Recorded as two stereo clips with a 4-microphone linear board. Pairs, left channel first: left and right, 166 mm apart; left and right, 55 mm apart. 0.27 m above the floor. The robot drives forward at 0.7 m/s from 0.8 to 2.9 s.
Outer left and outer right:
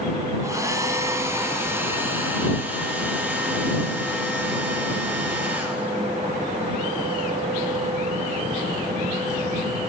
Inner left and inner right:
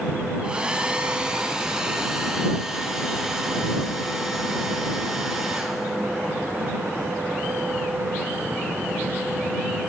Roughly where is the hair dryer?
Centre.